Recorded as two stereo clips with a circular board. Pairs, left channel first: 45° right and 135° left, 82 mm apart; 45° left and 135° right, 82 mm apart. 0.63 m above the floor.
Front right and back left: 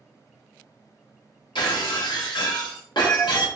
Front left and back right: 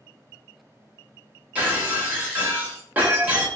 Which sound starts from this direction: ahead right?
Breaking glass, at 1.6 s.